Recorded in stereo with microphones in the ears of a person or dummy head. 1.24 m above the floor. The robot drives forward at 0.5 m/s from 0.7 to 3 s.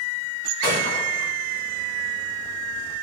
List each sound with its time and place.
0.6 s a gunshot: 60° right (ahead or behind), 4 m; by 1.3 s 65° right (ahead or behind), 4 m